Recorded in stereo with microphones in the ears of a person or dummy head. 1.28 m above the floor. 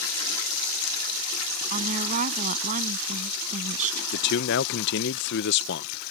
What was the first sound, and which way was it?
A woman speaking, 40° right (ahead or behind).